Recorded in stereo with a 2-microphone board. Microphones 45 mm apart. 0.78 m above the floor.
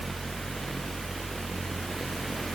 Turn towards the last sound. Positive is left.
No sound to turn to.